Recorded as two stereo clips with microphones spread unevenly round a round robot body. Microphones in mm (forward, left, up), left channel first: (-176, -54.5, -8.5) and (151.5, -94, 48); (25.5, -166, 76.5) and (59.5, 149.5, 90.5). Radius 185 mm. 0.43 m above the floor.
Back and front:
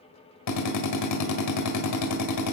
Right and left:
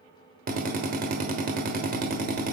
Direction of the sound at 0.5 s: 145° left.